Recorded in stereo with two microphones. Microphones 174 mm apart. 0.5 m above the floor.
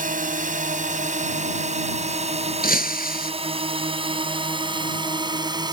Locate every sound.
0.0 s a drone: 50° right (ahead or behind); by 5.7 s 25° right (ahead or behind)
2.6 s breaking glass: 60° left (ahead or behind)